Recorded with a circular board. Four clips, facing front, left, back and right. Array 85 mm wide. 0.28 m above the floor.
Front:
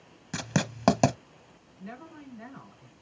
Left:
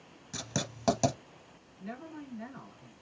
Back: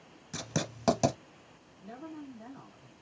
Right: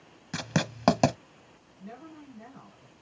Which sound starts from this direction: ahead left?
A woman speaking, at 1.8 s.